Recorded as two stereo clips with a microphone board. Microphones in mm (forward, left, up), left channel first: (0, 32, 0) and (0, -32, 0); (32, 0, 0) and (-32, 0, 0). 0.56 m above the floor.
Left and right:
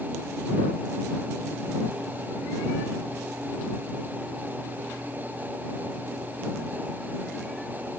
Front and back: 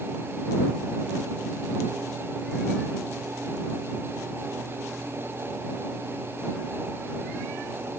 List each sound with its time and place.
Only background noise.